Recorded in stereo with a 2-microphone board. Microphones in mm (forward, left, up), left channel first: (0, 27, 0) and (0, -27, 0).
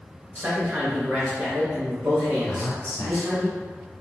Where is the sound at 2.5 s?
15° left (ahead or behind), 1.3 m.